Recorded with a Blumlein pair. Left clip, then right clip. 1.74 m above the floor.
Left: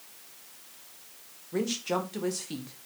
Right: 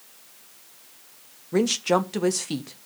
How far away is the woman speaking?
About 1.3 m.